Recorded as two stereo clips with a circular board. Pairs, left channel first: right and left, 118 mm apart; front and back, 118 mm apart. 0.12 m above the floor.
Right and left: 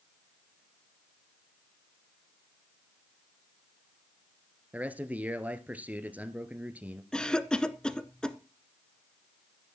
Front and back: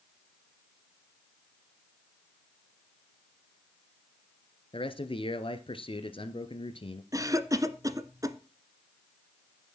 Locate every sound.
4.7 s a man speaking: 15° left, 1.7 m
7.1 s a cough: 165° right, 1.3 m